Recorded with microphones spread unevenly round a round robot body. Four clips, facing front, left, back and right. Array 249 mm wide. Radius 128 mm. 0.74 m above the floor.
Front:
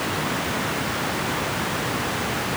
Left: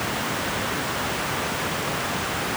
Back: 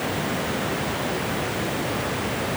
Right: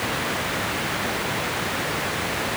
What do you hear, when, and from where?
Only background noise.